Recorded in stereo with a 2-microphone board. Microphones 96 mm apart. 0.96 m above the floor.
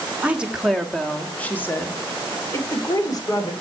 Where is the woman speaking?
15° right (ahead or behind), 1.4 m; by 3.5 s 45° left (ahead or behind), 2.5 m.